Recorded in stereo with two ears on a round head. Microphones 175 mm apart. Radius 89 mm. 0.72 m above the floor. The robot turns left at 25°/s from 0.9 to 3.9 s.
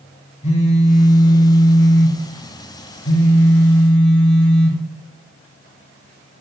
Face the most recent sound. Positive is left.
turn(degrees=60)